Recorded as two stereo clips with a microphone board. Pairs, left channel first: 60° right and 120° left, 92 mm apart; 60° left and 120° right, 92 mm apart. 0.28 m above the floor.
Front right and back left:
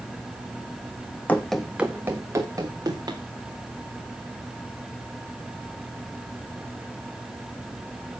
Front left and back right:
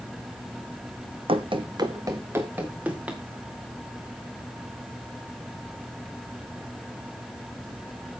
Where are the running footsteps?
130° right, 1.2 m; by 3.2 s 165° left, 3 m.